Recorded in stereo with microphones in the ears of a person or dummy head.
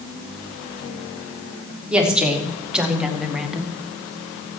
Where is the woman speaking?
5° right (ahead or behind), 3 m; by 3.7 s centre (ahead or behind), 1.2 m.